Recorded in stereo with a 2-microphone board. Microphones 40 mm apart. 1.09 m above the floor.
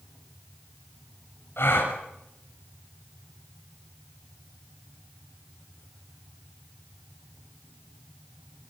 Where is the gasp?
65° left (ahead or behind), 6 m.